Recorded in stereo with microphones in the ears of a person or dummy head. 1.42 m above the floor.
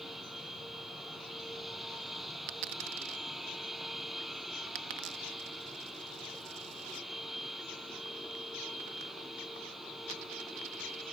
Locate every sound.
0.0 s a machine running: 5° right (ahead or behind)
2.5 s a dropped coin: 40° right (ahead or behind)